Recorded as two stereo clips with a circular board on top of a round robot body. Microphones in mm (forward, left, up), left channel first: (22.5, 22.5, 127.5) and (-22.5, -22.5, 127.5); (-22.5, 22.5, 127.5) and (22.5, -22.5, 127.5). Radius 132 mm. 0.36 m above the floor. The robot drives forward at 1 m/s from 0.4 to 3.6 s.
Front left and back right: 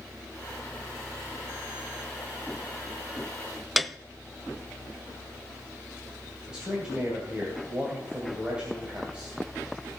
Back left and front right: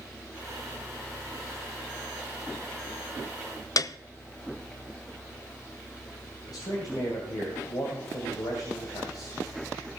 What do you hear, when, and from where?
3.8 s a piano: 135° left, 0.6 m
6.5 s a man speaking: 150° left, 2.5 m